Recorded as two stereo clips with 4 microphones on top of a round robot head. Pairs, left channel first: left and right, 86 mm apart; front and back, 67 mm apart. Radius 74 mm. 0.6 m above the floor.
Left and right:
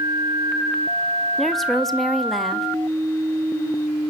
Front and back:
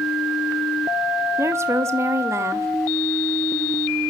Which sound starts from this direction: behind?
A woman speaking, at 1.4 s.